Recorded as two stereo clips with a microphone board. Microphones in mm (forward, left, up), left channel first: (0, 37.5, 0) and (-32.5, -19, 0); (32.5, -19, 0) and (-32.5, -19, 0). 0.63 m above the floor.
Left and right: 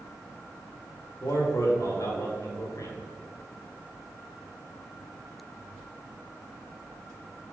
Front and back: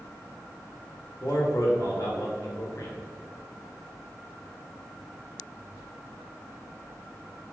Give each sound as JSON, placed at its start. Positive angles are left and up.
{"t": 1.2, "sound": "a man speaking", "azimuth_deg": 30, "distance_m": 1.8}